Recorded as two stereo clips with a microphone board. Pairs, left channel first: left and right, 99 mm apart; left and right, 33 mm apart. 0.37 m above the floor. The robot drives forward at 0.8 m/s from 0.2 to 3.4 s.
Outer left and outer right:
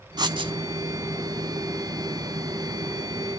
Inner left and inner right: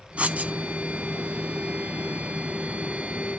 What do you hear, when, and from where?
0.2 s writing: 45° right (ahead or behind), 0.8 m; by 0.5 s 65° right (ahead or behind), 0.7 m